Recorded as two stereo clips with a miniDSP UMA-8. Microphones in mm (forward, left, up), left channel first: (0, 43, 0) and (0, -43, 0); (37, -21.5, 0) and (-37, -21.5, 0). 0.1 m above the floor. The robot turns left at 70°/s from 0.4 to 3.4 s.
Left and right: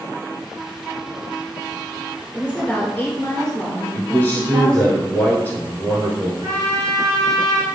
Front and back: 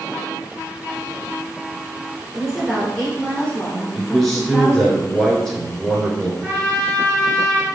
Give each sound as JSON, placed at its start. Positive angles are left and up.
{"t": 2.3, "sound": "a woman speaking", "azimuth_deg": 115, "distance_m": 1.2}
{"t": 3.9, "sound": "a man speaking", "azimuth_deg": 75, "distance_m": 1.1}
{"t": 6.4, "sound": "a trumpet", "azimuth_deg": -115, "distance_m": 2.0}